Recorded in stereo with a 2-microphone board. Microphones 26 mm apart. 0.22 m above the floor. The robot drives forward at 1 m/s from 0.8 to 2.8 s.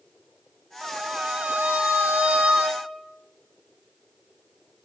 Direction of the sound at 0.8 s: 75° right (ahead or behind).